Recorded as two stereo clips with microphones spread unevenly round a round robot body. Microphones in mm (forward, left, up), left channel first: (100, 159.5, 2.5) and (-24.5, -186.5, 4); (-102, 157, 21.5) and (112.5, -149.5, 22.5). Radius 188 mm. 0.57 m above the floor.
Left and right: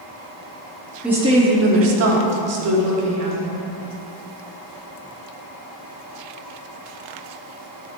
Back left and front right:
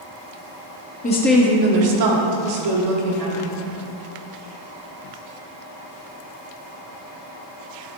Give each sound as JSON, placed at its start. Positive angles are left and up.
{"t": 1.0, "sound": "a woman speaking", "azimuth_deg": 165, "distance_m": 1.0}